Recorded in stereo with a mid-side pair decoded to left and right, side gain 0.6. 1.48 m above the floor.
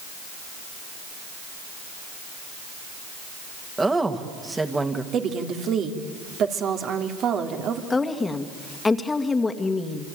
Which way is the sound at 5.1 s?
50° right.